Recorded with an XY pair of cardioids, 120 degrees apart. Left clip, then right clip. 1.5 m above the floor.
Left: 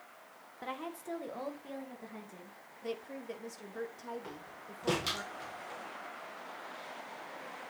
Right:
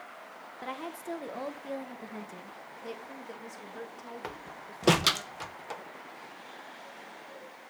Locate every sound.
0.6 s a woman speaking: 15° right, 1.3 m; by 2.6 s 35° right, 2 m
2.8 s a woman speaking: 5° left, 2.5 m
4.2 s a door slam: 70° right, 0.9 m